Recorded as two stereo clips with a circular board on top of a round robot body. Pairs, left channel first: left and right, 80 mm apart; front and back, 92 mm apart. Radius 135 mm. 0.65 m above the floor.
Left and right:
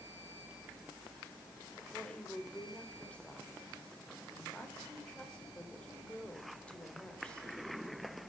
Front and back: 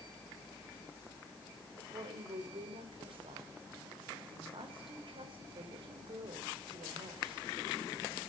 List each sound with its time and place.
1.8 s a woman speaking: 165° left, 4 m